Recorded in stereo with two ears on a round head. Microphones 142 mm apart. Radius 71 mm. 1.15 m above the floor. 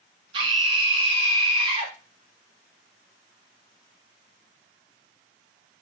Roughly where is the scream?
Right.